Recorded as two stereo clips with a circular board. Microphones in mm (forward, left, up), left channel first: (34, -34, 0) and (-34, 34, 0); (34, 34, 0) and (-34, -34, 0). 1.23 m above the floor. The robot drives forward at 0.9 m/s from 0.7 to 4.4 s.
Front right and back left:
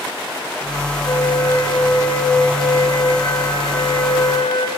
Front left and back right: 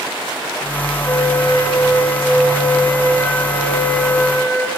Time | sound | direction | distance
1.1 | a flute | 10° right | 5.5 m